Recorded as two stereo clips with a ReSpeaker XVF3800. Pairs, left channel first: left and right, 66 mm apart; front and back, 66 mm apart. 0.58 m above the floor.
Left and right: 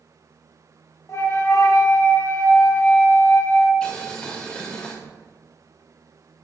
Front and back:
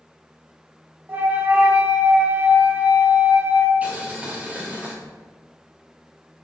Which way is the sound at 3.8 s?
145° left.